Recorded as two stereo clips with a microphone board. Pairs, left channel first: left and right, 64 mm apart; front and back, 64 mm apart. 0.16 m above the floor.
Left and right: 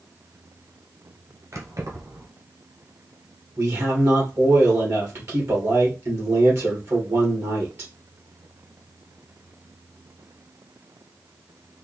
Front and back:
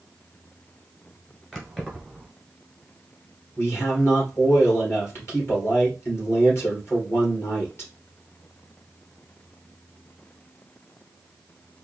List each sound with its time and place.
1.5 s keys jangling: 85° right, 1.3 m
3.6 s a man speaking: 50° right, 3 m